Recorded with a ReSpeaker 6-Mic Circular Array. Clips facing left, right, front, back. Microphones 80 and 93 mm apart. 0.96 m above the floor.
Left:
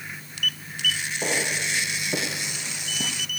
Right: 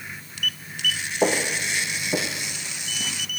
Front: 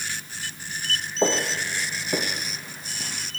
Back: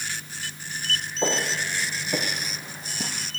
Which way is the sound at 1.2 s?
50° right.